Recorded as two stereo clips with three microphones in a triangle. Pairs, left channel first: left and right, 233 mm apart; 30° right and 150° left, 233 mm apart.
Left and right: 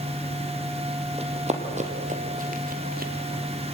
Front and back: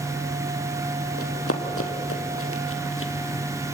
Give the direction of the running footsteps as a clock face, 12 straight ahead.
1 o'clock.